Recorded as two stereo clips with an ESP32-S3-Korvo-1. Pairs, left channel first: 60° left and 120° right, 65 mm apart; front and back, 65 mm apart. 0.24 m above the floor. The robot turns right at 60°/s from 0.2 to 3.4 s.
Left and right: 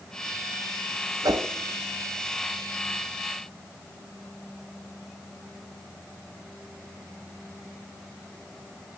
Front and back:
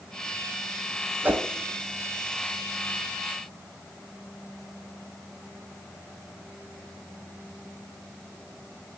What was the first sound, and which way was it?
A whoosh, 120° right.